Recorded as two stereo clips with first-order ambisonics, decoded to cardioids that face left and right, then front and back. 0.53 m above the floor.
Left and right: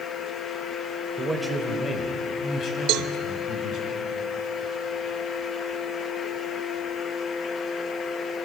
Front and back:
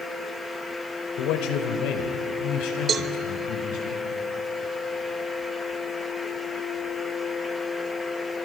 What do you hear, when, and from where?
1.2 s a man speaking: 10° right, 2 m; by 3.9 s 40° left, 5 m
2.9 s a cowbell: 115° right, 0.5 m